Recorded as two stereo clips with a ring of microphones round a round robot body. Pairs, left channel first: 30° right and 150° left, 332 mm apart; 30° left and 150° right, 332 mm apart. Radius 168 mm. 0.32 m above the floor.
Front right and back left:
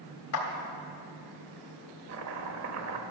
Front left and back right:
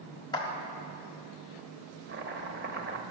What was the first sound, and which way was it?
A clap, 45° right.